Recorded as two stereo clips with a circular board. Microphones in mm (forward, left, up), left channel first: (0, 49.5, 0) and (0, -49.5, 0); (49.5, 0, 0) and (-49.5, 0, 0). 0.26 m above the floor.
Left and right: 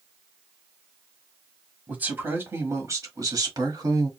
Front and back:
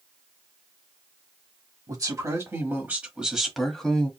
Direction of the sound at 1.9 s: 155° right.